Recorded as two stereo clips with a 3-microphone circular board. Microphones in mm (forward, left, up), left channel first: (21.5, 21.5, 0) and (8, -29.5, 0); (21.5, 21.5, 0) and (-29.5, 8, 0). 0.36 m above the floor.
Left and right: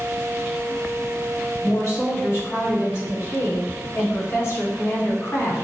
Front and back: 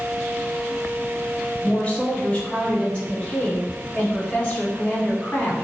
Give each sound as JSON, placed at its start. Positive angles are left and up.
{"t": 1.6, "sound": "a woman speaking", "azimuth_deg": 80, "distance_m": 2.0}